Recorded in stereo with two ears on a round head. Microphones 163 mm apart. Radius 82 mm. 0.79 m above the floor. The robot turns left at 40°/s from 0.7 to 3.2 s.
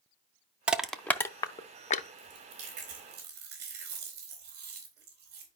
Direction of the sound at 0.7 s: 5° right (ahead or behind).